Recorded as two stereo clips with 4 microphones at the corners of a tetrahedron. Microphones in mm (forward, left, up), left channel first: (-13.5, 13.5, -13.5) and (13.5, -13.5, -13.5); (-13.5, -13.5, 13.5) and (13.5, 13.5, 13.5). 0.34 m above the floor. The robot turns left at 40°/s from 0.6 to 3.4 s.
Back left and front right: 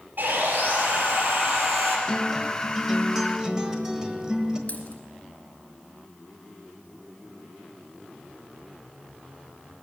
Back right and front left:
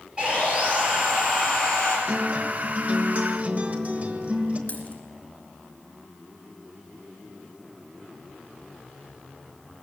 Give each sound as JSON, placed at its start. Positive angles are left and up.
{"t": 0.2, "sound": "sawing", "azimuth_deg": -20, "distance_m": 5.0}
{"t": 2.1, "sound": "a guitar", "azimuth_deg": 75, "distance_m": 1.2}
{"t": 4.7, "sound": "a dropped coin", "azimuth_deg": -175, "distance_m": 2.0}